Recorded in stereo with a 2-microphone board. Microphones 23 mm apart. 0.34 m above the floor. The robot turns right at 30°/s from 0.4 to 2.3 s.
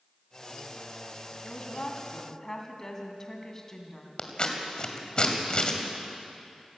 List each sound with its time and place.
1.4 s a woman speaking: 45° left (ahead or behind), 2.5 m; by 4.3 s 25° left (ahead or behind), 2.5 m
4.2 s scissors: 40° left (ahead or behind), 2 m